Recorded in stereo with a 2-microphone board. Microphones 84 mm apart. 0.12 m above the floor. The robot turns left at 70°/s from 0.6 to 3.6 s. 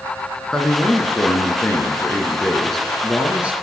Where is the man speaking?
10° left (ahead or behind), 1.1 m; by 3.5 s 15° right (ahead or behind), 1.1 m.